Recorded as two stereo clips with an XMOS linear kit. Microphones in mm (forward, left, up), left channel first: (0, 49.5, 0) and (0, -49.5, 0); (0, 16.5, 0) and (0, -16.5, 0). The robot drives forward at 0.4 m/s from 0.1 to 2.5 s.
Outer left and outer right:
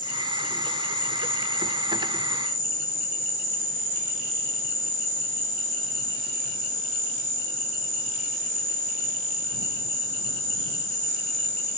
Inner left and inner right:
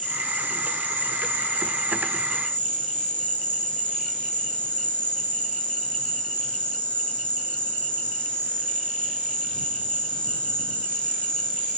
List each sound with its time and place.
0.0 s an insect: 45° left (ahead or behind), 3.5 m; by 11.8 s 35° left (ahead or behind), 4 m